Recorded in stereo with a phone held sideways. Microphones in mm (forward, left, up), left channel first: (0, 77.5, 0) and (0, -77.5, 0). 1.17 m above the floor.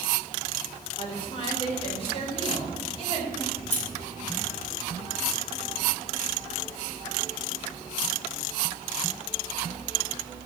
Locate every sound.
1.0 s a woman speaking: 35° left (ahead or behind), 4.5 m; by 3.4 s 40° left (ahead or behind), 7.5 m
3.5 s scissors: 45° left (ahead or behind), 3.5 m